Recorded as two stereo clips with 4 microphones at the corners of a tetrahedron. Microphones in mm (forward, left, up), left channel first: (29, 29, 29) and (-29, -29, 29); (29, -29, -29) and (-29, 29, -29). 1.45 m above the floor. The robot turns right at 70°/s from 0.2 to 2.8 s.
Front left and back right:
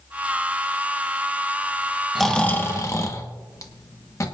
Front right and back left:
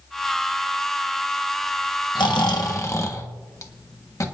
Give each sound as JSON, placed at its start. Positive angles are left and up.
{"t": 2.1, "sound": "snoring", "azimuth_deg": -45, "distance_m": 1.4}